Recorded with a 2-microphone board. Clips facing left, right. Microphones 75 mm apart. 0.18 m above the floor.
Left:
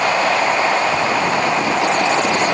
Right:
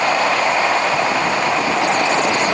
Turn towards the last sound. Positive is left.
No sound to turn to.